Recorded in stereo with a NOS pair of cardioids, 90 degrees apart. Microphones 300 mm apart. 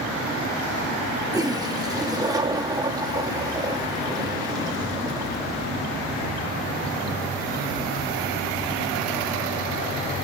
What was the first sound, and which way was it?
A toilet flushing, 10° right.